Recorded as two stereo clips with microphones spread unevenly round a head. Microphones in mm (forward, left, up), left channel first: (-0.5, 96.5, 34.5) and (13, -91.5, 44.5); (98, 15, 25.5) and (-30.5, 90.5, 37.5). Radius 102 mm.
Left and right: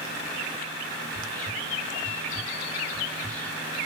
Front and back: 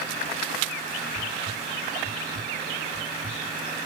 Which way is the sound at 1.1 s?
Straight behind.